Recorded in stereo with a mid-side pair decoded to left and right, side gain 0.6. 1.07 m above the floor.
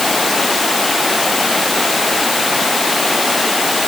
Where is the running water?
15° left.